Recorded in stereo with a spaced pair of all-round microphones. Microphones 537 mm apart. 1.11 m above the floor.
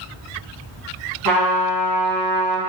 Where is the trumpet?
35° right (ahead or behind), 0.9 m.